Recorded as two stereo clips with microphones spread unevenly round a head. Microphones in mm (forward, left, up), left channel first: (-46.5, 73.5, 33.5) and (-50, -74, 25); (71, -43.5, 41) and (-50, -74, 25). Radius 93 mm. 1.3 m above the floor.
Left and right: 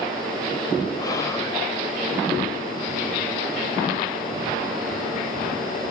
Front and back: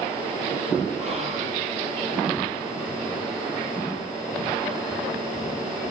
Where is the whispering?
155° left, 0.8 m.